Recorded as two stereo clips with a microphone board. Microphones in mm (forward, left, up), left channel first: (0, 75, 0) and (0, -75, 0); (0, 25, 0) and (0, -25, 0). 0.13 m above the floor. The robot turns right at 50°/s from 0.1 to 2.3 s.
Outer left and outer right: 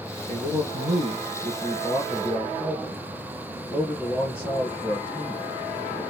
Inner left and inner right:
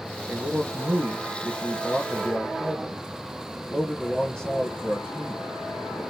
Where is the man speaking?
85° right, 3 m; by 6.0 s 20° left, 3 m.